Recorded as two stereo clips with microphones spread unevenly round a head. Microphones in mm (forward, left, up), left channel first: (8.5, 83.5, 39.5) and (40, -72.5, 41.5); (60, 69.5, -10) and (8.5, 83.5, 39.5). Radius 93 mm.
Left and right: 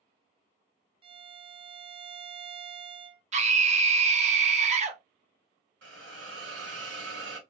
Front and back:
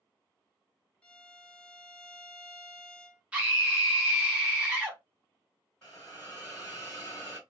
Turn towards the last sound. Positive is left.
turn(degrees=-105)